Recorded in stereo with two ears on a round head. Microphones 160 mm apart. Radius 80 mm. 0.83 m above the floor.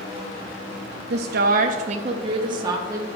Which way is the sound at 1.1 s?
60° right (ahead or behind).